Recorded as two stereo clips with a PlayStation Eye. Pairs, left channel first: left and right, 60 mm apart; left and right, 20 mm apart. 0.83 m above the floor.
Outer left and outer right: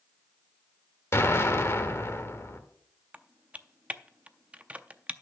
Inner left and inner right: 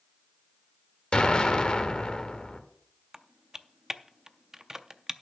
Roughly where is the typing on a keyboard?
Right.